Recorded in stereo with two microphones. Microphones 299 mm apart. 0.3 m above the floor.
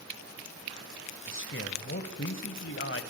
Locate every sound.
1.3 s a man speaking: 45° left (ahead or behind), 1.4 m